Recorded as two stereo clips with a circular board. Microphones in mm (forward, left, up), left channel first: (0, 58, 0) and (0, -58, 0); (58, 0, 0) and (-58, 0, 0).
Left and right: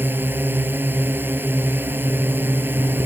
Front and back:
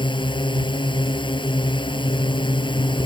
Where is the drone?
25° right.